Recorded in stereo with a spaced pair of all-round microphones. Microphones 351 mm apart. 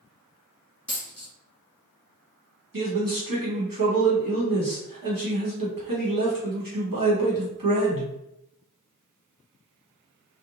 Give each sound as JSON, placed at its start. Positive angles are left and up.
{"t": 0.9, "sound": "a dropped coin", "side_deg": 5, "distance_m": 1.6}
{"t": 2.7, "sound": "a man speaking", "side_deg": -80, "distance_m": 1.1}